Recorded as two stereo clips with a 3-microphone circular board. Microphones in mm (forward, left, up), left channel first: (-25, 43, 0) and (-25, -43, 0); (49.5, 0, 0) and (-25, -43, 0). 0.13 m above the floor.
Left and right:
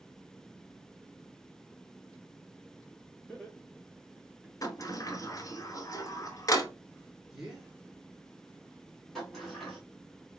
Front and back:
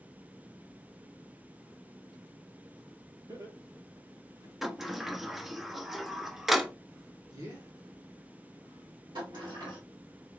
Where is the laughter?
170° left, 2.5 m; by 4.6 s 175° right, 2 m.